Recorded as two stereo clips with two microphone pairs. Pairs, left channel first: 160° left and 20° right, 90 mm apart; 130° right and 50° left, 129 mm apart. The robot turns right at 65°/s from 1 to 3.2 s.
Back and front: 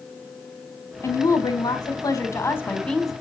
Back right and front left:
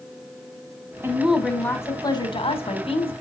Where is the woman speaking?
115° left, 2 m; by 3.1 s 105° right, 2 m.